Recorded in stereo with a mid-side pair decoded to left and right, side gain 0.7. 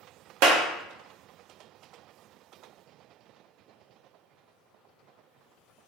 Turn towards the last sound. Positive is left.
turn(degrees=-70)